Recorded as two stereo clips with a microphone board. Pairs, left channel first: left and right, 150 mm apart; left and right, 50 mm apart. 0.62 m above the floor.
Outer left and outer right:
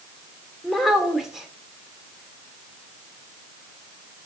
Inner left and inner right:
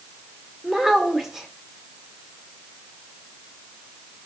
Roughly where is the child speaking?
Centre.